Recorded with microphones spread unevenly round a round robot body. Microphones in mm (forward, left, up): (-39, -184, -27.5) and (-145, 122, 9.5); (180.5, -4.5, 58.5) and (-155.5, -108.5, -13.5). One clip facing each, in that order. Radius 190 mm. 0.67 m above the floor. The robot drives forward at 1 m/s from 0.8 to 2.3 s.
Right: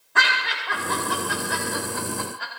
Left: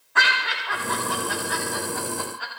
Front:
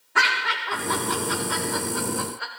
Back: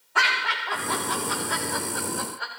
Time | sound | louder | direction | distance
0.1 | laughter | even, front 2 dB | 50° right | 4 m